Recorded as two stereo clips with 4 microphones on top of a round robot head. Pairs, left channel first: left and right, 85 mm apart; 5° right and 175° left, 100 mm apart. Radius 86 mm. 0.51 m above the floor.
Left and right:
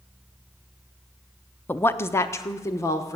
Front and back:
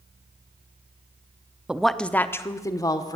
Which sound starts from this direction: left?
A woman speaking, at 1.7 s.